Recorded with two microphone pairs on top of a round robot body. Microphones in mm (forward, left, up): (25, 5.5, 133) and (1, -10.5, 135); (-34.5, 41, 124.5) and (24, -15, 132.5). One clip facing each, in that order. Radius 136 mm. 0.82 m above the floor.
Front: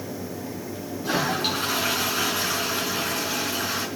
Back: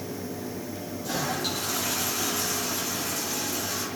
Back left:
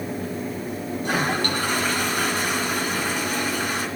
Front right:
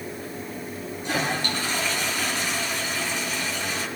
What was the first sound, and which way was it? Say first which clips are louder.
A toilet flushing: front 5 dB, back left 3 dB; 90° left.